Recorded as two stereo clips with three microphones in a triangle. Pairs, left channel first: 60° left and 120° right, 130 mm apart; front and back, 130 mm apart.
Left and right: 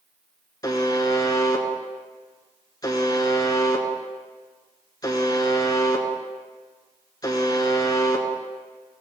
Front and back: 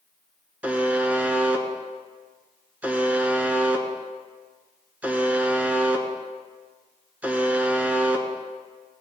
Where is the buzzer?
105° left, 1.0 m.